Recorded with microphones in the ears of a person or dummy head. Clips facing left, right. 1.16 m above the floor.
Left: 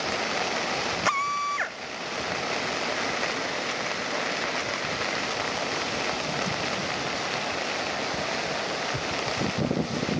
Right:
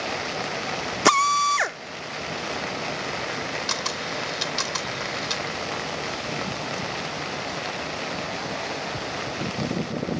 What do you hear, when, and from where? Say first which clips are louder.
1.1 s a drill: right 8 dB; 60° right (ahead or behind)
3.7 s a camera shutter: even; 85° right